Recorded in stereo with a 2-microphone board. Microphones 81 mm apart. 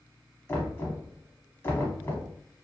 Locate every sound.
0.5 s knocking: 25° left (ahead or behind), 0.9 m